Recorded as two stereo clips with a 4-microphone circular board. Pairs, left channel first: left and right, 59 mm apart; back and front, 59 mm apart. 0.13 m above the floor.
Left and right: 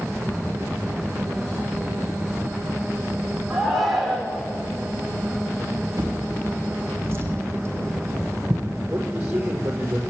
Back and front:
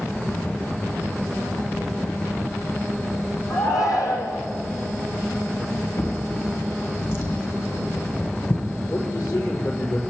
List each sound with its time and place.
3.5 s a shout: straight behind, 5.5 m
6.0 s a drawer: 140° right, 4 m
8.9 s a man speaking: 155° right, 5 m